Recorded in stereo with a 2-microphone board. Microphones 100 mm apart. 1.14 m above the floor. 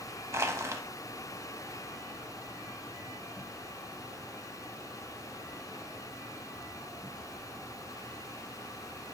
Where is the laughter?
I don't hear laughter.